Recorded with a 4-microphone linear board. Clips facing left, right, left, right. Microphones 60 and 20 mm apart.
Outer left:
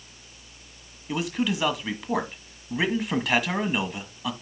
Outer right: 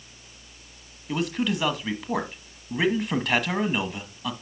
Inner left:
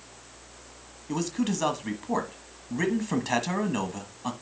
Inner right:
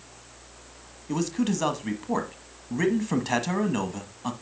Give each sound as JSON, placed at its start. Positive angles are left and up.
{"t": 1.1, "sound": "a man speaking", "side_deg": 5, "distance_m": 1.3}